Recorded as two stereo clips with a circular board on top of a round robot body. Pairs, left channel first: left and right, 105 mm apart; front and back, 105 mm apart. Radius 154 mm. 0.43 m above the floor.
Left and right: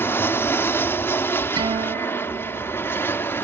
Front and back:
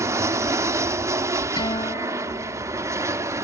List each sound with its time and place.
0.0 s an aircraft: 140° left
1.6 s a guitar: 45° right